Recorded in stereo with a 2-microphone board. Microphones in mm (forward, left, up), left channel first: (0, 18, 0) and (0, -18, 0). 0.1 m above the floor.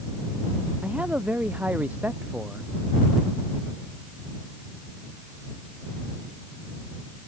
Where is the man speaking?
40° right (ahead or behind); by 2.7 s 50° right (ahead or behind).